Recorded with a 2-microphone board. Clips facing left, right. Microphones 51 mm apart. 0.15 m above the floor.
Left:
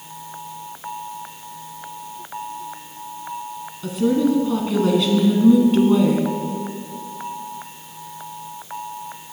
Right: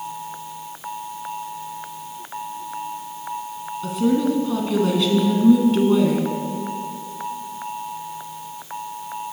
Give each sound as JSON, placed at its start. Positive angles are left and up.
{"t": 3.8, "sound": "a woman speaking", "side_deg": 0, "distance_m": 1.3}